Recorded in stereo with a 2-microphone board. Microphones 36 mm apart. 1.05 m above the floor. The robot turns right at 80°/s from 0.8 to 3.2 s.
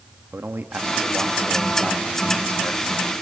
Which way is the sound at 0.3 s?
85° right.